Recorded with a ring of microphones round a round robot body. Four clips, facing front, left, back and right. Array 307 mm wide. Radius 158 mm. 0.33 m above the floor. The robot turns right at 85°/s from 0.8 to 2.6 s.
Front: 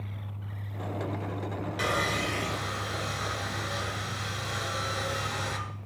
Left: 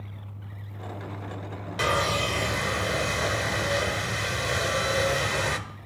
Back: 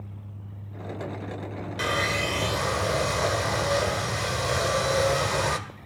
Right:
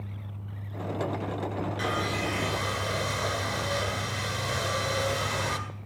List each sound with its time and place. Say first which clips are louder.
1.8 s sawing: left 7 dB, back 3 dB; 90° left, 1.9 m; by 5.6 s 160° left, 1.9 m